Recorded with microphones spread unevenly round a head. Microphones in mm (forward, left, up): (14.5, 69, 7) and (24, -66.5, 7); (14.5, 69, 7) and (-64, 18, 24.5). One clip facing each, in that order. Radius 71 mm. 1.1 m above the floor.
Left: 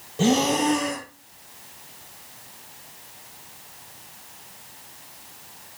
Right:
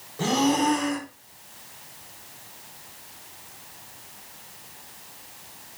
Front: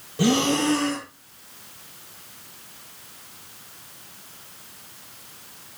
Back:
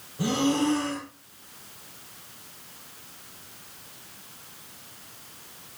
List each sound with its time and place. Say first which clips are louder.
0.2 s breathing: left 2 dB, front 3 dB; 30° left, 0.5 m